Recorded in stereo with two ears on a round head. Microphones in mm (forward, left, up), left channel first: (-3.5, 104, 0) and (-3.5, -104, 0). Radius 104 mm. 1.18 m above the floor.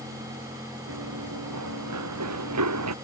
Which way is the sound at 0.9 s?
80° right.